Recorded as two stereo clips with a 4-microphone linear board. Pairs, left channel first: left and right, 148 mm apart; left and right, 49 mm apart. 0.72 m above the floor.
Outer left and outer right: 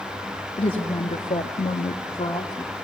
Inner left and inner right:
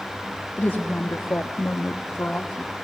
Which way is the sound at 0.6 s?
35° left (ahead or behind).